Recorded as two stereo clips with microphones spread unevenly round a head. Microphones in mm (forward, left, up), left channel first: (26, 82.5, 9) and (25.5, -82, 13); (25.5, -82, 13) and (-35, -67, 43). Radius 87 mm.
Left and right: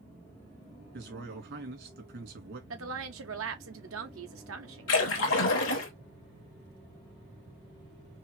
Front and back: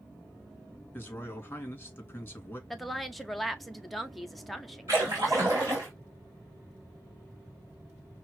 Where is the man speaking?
80° right, 2.5 m.